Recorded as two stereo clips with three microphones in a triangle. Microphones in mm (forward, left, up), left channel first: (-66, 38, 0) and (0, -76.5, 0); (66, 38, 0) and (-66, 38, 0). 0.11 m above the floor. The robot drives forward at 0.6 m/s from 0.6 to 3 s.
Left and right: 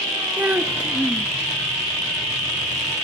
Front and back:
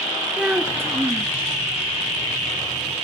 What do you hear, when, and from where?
0.4 s a child speaking: 115° right, 1.0 m; by 1.3 s 150° right, 1.1 m